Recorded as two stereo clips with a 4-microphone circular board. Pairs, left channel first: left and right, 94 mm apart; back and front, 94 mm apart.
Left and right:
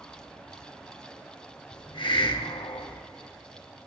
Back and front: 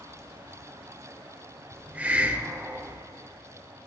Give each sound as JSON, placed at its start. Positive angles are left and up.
{"t": 1.7, "sound": "a hiss", "azimuth_deg": 70, "distance_m": 0.7}